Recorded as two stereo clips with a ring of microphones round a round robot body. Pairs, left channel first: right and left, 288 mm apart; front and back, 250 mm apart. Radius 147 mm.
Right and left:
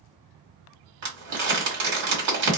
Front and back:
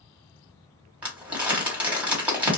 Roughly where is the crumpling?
Left.